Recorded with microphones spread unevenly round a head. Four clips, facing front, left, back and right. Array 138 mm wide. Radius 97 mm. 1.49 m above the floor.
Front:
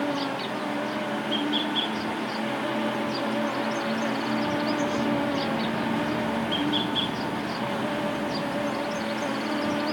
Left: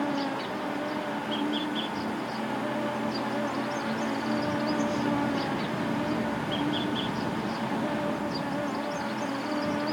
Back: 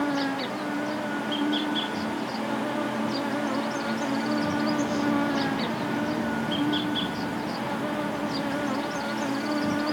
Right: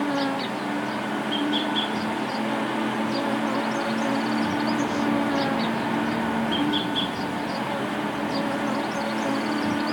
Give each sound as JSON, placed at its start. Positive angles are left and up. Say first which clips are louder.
{"t": 0.0, "sound": "an insect", "louder": "right 4 dB, back 1 dB", "azimuth_deg": -115, "distance_m": 1.0}